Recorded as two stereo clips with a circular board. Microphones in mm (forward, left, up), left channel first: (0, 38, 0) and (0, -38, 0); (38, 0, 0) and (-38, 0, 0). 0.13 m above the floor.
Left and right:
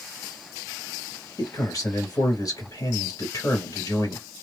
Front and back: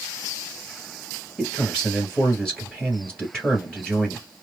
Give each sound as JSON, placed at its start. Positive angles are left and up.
{"t": 1.4, "sound": "a man speaking", "azimuth_deg": 80, "distance_m": 2.5}